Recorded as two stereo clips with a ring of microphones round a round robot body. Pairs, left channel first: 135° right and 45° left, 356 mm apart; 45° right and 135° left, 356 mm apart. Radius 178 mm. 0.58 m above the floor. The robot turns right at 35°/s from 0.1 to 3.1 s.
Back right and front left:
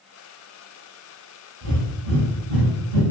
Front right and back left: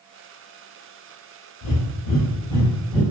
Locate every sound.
1.6 s breathing: straight ahead, 0.8 m; by 3.0 s 50° left, 0.8 m